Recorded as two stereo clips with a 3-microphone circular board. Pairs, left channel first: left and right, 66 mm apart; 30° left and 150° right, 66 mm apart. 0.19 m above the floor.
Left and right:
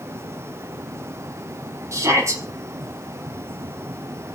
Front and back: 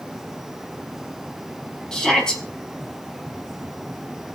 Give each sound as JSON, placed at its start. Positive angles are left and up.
{"t": 1.9, "sound": "a shout", "azimuth_deg": -50, "distance_m": 6.0}